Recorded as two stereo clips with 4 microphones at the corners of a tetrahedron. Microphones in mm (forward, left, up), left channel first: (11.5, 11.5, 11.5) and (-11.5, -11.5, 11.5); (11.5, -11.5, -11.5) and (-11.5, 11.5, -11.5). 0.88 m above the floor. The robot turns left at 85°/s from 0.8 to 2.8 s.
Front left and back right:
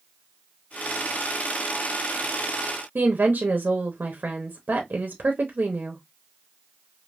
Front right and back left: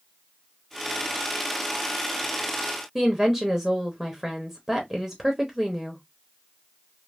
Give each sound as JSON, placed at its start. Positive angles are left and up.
{"t": 3.0, "sound": "a woman speaking", "azimuth_deg": -150, "distance_m": 0.8}